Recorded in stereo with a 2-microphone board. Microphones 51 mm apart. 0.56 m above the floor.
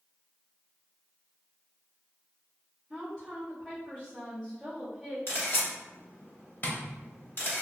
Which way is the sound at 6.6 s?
35° left (ahead or behind).